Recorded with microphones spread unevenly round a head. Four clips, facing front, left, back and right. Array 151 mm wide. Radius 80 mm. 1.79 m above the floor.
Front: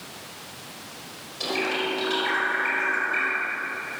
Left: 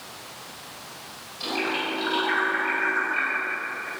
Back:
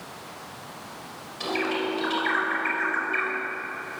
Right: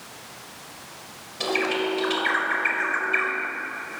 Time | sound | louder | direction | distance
1.4 | a bird | right 4 dB, even | 85° right | 5.5 m